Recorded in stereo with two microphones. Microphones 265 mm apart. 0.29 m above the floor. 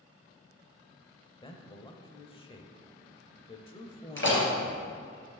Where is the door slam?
45° left (ahead or behind), 3.5 m.